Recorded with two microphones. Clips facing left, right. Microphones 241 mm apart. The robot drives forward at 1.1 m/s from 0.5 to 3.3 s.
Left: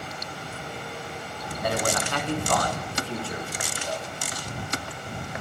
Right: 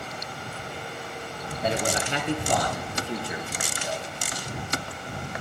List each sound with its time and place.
1.6 s a man speaking: 25° right (ahead or behind), 2.5 m; by 4.1 s 15° right (ahead or behind), 4 m